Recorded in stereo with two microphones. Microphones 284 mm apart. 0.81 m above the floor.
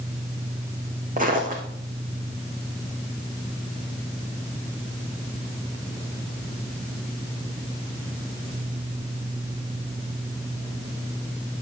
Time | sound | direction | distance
1.2 | footsteps | 30° right (ahead or behind) | 2 m